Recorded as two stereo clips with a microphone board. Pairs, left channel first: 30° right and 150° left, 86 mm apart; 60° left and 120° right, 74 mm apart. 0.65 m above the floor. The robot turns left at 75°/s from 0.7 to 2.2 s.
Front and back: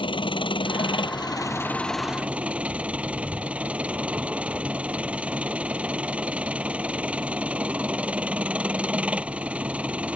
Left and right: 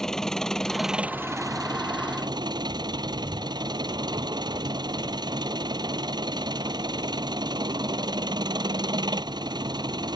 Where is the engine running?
25° right; by 10.2 s 135° right.